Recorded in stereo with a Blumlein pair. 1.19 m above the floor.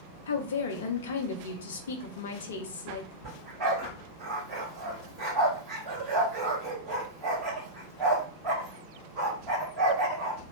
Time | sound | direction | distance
0.3 | a woman speaking | 60° left | 0.5 m
3.2 | a dog barking | 25° right | 1.9 m